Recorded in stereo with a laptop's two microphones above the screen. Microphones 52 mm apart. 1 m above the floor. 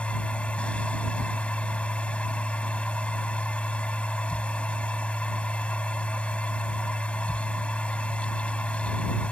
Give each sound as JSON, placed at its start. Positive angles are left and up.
{"t": 0.0, "sound": "a machine running", "side_deg": 25}